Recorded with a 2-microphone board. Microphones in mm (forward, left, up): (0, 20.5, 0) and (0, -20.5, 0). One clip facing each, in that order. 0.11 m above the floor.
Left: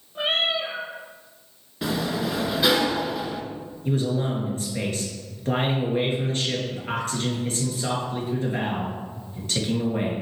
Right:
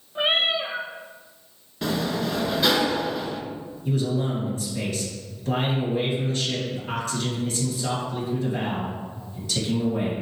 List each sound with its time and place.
0.1 s a cat meowing: 20° right (ahead or behind), 1.0 m
1.8 s a sliding door: 5° left (ahead or behind), 0.8 m
3.9 s a man speaking: 40° left (ahead or behind), 2 m